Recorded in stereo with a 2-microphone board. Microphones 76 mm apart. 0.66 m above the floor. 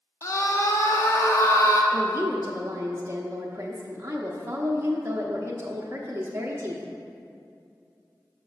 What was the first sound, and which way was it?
A scream, 45° left (ahead or behind).